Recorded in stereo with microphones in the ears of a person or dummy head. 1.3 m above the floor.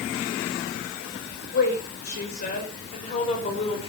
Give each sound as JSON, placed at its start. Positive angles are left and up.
{"t": 1.5, "sound": "a woman speaking", "side_deg": 50, "distance_m": 6.5}